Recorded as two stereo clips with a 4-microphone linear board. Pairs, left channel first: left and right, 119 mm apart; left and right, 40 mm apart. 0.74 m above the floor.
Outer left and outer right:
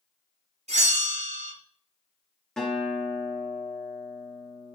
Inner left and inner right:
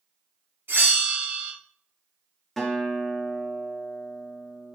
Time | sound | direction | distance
0.7 | a bell | 65° right (ahead or behind) | 2.5 m
2.6 | a guitar | 5° left (ahead or behind) | 2 m